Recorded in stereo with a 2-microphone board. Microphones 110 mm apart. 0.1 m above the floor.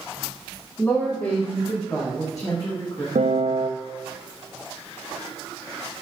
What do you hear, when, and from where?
0.8 s a woman speaking: 15° left (ahead or behind), 7.5 m; by 3.0 s 25° left (ahead or behind), 6.5 m
3.1 s a piano: 75° right (ahead or behind), 2.5 m